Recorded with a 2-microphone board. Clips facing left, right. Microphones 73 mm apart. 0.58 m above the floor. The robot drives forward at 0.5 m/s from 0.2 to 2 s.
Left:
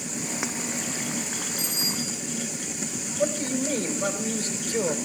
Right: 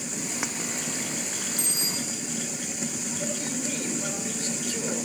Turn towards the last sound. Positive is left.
turn(degrees=35)  # may be behind; listen again after turning